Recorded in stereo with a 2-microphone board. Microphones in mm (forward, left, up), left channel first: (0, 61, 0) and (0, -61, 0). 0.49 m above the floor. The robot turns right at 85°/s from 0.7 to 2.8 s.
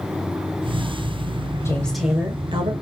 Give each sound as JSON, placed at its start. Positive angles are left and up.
{"t": 1.6, "sound": "a woman speaking", "azimuth_deg": 155, "distance_m": 2.0}